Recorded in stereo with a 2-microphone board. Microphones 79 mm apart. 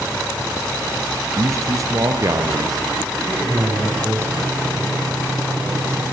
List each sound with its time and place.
1.4 s a man speaking: 35° right (ahead or behind), 1.9 m; by 3.2 s 55° right (ahead or behind), 2.5 m
3.3 s a man speaking: 30° right (ahead or behind), 7.5 m